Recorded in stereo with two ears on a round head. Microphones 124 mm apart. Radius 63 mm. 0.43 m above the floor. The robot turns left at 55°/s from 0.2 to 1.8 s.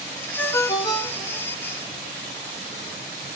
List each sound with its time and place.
0.4 s a ringtone: 160° left, 0.6 m; by 1.5 s 100° left, 0.6 m